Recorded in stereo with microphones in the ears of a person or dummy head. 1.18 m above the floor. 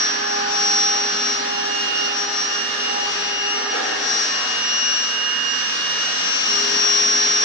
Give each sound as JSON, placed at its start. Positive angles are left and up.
{"t": 0.0, "sound": "a machine running", "side_deg": 75, "distance_m": 1.7}